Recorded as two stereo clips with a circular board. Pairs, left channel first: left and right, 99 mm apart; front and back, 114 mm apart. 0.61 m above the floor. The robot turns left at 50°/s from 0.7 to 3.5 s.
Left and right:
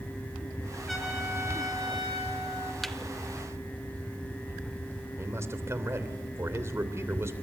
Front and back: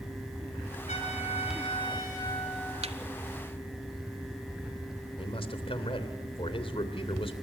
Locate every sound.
0.9 s a trumpet: straight ahead, 7 m; by 2.7 s 90° right, 7 m
2.8 s a thud: straight behind, 1.0 m; by 3.0 s 170° left, 1.0 m
5.2 s a man speaking: 30° right, 3 m